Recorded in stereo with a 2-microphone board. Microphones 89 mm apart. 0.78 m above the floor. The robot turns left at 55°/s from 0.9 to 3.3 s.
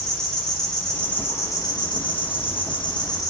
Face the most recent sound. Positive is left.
turn(degrees=40)